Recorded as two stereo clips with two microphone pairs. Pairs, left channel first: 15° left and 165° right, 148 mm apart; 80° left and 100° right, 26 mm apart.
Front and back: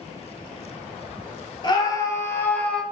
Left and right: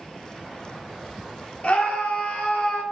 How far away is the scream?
About 1.9 m.